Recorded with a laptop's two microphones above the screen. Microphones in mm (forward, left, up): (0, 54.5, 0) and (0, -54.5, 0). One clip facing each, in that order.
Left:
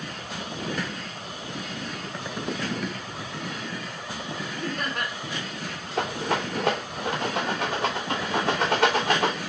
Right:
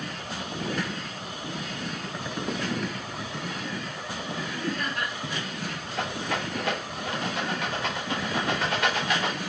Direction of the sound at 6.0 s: 75° left (ahead or behind).